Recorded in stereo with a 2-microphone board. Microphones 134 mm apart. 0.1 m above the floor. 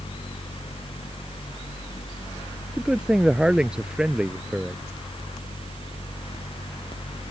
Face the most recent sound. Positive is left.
turn(degrees=-5)  # may be behind; listen again after turning